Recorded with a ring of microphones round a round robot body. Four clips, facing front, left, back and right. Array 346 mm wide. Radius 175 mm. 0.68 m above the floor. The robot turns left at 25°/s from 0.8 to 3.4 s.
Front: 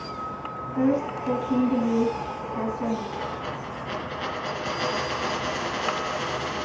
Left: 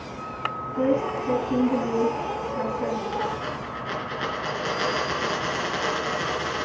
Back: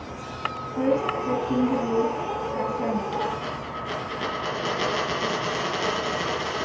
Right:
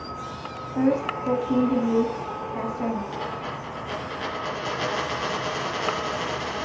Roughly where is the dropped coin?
Behind.